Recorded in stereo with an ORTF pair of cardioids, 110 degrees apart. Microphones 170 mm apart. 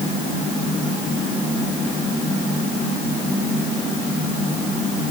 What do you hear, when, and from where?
Only background noise.